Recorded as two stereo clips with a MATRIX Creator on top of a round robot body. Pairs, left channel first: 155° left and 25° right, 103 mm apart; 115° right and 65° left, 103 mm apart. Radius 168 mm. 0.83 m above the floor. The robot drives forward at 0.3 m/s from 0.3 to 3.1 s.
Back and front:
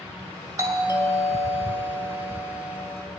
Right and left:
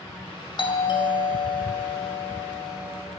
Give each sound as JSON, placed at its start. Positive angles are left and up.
{"t": 0.6, "sound": "a doorbell", "azimuth_deg": -75, "distance_m": 1.9}